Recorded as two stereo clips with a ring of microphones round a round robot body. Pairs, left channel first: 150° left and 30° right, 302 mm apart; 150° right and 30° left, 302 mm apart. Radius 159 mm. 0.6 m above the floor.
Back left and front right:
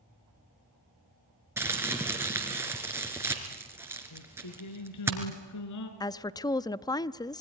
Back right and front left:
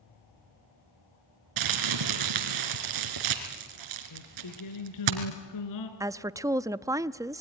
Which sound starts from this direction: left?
A woman speaking, at 6.0 s.